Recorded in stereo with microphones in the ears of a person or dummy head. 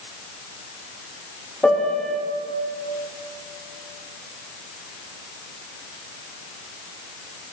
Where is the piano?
Centre (ahead or behind), 1.9 m.